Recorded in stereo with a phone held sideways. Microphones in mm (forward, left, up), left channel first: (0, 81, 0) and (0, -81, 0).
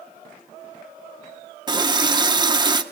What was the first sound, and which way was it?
A running tap, 25° right (ahead or behind).